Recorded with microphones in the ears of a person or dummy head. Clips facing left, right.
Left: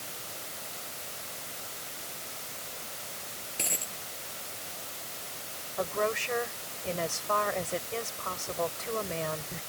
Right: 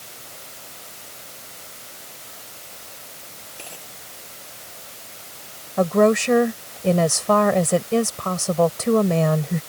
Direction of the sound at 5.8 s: 80° right.